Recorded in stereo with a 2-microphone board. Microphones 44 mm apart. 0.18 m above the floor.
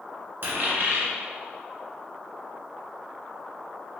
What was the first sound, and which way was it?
A dropped coin, 55° right (ahead or behind).